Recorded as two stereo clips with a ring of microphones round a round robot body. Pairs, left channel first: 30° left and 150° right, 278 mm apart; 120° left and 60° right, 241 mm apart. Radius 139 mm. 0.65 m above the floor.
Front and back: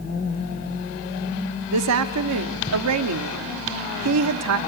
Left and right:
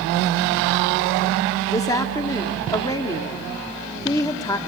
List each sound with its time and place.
1.7 s a woman speaking: 165° right, 1.0 m